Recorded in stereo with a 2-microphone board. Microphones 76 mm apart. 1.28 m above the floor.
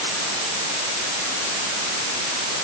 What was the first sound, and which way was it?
Only background noise.